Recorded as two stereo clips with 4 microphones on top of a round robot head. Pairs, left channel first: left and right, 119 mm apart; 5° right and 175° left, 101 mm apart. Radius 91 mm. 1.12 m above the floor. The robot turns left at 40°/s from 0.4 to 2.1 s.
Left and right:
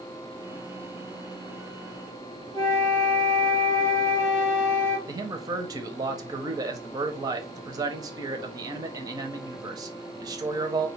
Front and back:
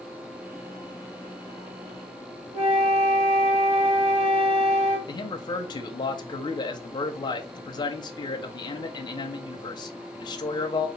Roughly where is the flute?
Behind right.